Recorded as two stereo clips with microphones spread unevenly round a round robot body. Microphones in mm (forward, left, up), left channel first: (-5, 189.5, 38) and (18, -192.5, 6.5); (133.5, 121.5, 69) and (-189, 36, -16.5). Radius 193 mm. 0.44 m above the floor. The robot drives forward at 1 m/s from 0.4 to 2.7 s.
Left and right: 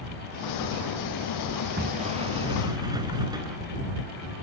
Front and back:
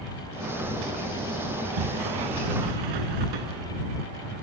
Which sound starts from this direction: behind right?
A sliding door, at 1.5 s.